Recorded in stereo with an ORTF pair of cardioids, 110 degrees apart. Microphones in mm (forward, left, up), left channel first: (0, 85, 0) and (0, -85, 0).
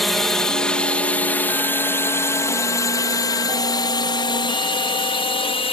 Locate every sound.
0.0 s a drone: straight ahead; by 5.7 s 30° left